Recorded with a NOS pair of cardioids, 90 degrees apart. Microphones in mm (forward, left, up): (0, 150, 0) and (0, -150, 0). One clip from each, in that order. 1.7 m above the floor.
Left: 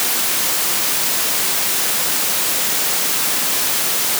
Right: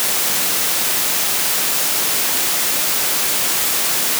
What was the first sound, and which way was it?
Only background noise.